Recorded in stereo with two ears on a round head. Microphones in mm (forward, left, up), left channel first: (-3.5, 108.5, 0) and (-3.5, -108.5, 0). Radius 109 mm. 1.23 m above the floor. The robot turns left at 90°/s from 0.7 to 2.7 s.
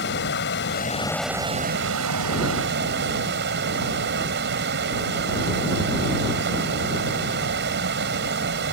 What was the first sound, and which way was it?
Running water, 50° left.